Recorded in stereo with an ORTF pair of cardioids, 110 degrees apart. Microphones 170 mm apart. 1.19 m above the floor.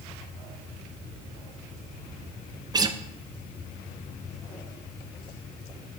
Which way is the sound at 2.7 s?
25° right.